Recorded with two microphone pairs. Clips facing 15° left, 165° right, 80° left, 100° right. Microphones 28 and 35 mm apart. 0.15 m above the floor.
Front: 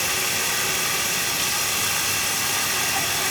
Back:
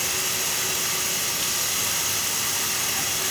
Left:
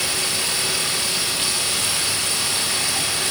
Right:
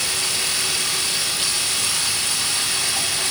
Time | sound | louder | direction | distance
0.0 | running water | front 3 dB, even | 25° left | 5.5 m